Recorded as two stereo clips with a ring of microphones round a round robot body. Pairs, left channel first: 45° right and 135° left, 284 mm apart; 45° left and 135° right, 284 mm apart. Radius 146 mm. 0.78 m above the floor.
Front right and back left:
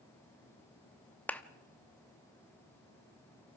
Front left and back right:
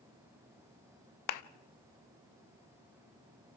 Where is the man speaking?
I don't hear a man speaking.